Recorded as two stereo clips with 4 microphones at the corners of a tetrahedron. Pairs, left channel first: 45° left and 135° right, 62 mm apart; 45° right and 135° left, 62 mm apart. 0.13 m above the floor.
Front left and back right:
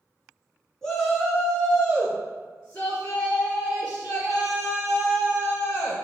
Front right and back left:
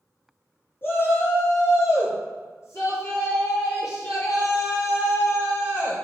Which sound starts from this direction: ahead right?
A shout, at 0.8 s.